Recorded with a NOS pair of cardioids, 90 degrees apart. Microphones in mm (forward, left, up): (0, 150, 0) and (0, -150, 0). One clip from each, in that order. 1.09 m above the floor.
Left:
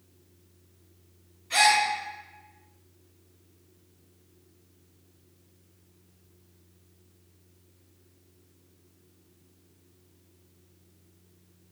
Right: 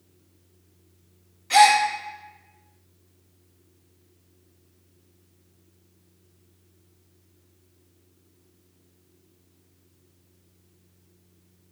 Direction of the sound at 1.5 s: 70° right.